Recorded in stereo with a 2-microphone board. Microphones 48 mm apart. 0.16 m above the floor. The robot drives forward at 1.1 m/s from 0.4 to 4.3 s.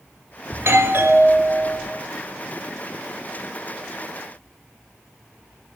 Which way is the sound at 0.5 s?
60° right (ahead or behind).